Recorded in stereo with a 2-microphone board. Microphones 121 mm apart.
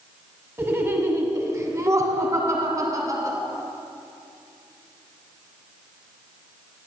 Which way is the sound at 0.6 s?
20° right (ahead or behind).